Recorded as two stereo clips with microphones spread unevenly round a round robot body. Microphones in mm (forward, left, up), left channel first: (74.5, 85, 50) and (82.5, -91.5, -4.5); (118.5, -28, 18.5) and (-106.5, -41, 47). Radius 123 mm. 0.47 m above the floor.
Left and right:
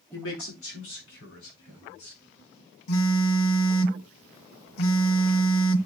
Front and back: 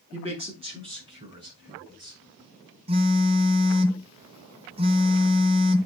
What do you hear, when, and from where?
0.1 s a man speaking: 115° left, 5.5 m; by 2.2 s 110° left, 7 m
2.9 s a phone buzzing: 115° left, 0.7 m